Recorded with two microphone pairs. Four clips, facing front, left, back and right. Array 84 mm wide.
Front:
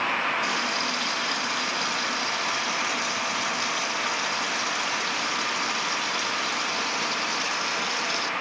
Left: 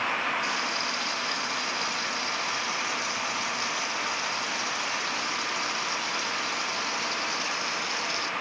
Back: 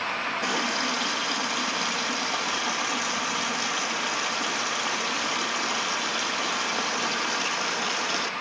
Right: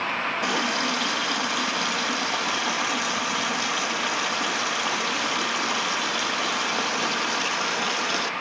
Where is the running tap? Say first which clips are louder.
Right 5 dB, even; 115° right, 1.1 m.